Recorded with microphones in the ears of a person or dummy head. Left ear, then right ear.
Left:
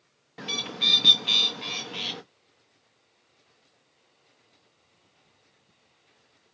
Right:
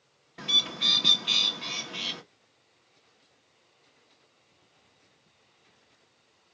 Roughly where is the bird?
Centre.